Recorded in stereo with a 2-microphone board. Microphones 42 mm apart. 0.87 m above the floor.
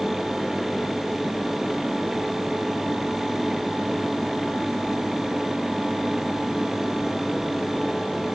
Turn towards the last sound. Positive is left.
No sound to turn to.